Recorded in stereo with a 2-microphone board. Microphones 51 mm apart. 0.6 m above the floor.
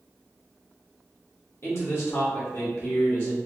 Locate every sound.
1.6 s a man speaking: 50° left (ahead or behind), 1.2 m